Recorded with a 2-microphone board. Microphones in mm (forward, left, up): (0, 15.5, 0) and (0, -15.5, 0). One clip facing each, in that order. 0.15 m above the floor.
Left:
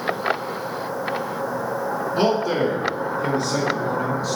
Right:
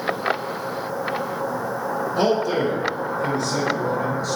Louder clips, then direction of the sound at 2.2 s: Even; 20° left (ahead or behind).